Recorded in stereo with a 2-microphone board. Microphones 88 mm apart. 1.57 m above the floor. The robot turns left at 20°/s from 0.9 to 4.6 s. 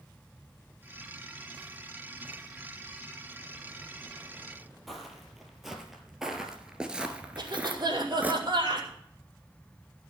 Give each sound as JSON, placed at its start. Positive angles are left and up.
{"t": 4.9, "sound": "footsteps", "side_deg": 0, "distance_m": 3.0}
{"t": 7.4, "sound": "a cough", "side_deg": -55, "distance_m": 4.5}